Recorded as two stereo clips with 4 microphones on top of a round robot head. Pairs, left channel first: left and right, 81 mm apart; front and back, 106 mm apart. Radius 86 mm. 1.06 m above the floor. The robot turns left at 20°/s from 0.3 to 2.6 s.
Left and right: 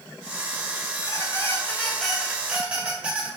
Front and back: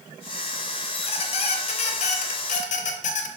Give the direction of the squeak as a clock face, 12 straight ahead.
11 o'clock.